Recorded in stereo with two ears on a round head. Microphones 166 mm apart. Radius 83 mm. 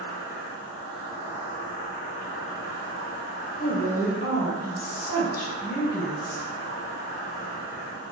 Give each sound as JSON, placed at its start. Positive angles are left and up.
{"t": 0.0, "sound": "an insect", "side_deg": 45, "distance_m": 0.7}
{"t": 3.6, "sound": "a woman speaking", "side_deg": 55, "distance_m": 0.7}